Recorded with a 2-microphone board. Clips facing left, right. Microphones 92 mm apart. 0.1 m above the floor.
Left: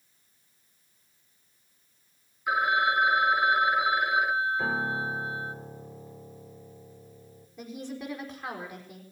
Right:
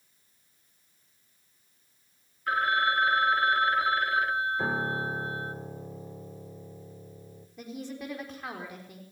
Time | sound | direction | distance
2.5 | a phone ringing | 10° left (ahead or behind) | 0.9 m
4.6 | a piano | 10° right (ahead or behind) | 1.6 m
7.6 | a woman speaking | centre (ahead or behind) | 5 m